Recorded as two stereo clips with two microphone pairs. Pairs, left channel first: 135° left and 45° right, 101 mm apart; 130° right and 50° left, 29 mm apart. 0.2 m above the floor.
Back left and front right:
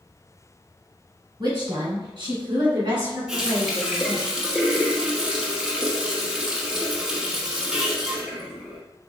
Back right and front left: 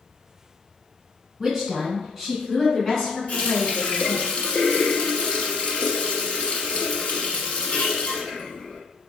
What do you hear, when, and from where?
1.4 s a woman speaking: 25° right, 1.7 m; by 4.3 s 90° right, 1.8 m
3.3 s a running tap: 130° right, 0.9 m